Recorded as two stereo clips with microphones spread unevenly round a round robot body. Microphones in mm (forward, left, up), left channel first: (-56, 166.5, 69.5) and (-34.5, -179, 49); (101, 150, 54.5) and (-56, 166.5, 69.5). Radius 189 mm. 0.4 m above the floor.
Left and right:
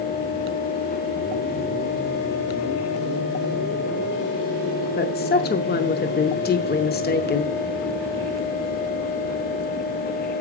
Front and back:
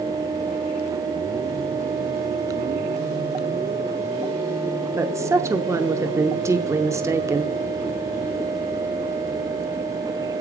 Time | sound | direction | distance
5.0 | a woman speaking | 110° left | 0.8 m